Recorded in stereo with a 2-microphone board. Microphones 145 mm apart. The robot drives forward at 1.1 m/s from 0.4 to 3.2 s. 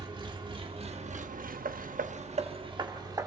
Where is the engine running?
30° right (ahead or behind), 1.6 m; by 3.3 s 25° right (ahead or behind), 1.9 m.